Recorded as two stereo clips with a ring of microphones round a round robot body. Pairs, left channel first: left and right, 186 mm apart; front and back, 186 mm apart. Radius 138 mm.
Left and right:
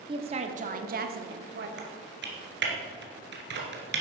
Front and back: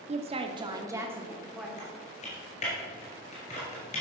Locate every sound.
0.1 s a woman speaking: 145° right, 0.9 m; by 1.7 s 90° right, 1.3 m
1.8 s typing on a keyboard: 65° right, 2 m